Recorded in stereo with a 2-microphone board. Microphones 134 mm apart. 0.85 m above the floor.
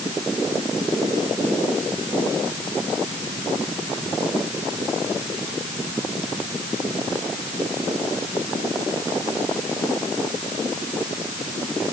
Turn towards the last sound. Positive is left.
No sound to turn to.